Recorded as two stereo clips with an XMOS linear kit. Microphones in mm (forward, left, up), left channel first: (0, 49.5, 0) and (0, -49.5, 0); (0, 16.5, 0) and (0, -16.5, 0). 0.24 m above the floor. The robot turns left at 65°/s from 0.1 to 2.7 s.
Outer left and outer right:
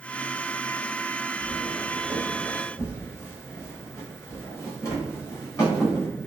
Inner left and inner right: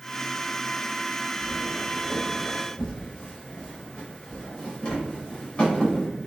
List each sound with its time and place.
1.4 s footsteps: 65° right (ahead or behind), 1.7 m; by 6.1 s 30° left (ahead or behind), 4.5 m